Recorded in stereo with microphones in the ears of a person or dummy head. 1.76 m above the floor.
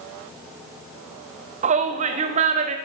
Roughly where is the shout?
Right.